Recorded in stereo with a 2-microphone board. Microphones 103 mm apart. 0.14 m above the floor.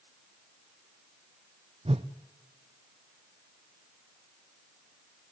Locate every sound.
1.9 s a whoosh: 75° right (ahead or behind), 1.0 m